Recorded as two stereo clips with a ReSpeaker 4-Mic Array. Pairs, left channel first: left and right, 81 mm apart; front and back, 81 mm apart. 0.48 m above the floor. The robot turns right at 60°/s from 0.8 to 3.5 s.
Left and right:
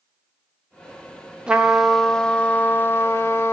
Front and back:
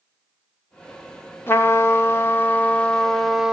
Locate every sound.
1.5 s a trumpet: 25° right, 0.9 m; by 3.5 s 100° left, 0.9 m